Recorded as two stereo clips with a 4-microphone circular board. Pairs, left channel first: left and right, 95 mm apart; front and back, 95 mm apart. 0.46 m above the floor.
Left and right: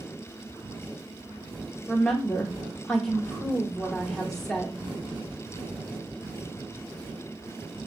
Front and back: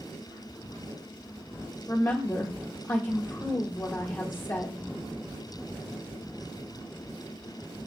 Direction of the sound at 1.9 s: 15° left.